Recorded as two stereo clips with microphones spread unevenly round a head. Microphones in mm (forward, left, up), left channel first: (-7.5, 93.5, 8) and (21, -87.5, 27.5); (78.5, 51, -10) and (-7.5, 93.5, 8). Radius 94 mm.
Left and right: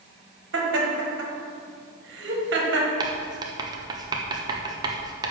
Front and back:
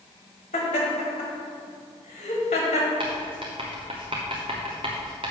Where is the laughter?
60° right, 1.8 m.